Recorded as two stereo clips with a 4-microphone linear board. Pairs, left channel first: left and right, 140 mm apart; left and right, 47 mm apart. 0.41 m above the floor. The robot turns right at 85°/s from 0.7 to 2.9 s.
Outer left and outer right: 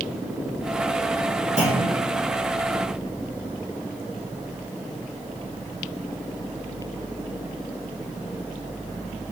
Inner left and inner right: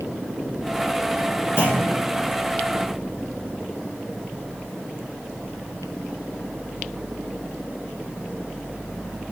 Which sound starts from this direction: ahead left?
A clunk, at 1.6 s.